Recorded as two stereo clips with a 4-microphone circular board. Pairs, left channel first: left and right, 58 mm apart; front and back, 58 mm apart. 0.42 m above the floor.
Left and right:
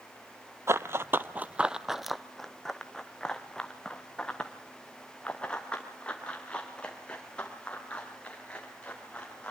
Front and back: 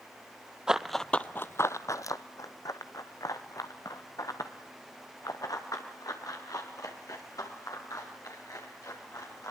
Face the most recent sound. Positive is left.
turn(degrees=20)